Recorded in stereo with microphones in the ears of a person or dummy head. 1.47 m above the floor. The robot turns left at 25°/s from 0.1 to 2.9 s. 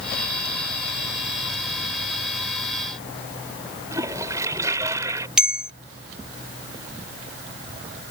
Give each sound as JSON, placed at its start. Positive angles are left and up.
{"t": 3.9, "sound": "a toilet flushing", "side_deg": -25}
{"t": 5.4, "sound": "a bell", "side_deg": -5}